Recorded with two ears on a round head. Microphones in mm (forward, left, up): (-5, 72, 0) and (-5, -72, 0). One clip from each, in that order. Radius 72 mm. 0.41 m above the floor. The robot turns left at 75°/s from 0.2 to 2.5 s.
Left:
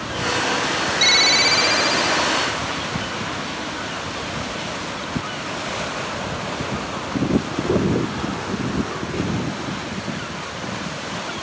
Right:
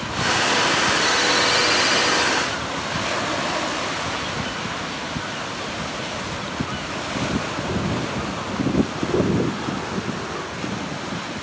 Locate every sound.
1.0 s a ringtone: 70° left; by 2.4 s 35° right